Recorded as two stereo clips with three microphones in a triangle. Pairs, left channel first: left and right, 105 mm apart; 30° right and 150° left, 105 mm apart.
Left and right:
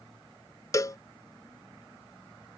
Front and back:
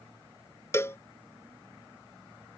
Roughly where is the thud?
No thud in this recording.